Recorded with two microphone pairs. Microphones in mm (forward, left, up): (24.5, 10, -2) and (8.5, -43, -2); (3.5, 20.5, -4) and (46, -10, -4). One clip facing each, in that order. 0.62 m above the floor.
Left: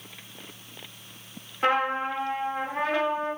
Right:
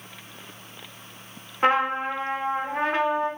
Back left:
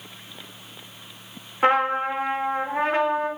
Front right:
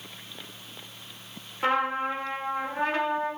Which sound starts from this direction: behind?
A trumpet, at 1.6 s.